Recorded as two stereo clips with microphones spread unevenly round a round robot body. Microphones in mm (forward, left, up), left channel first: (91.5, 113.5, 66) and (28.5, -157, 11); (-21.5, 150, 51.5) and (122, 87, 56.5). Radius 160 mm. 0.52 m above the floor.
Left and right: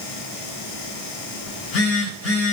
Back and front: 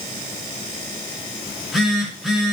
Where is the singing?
No singing in this recording.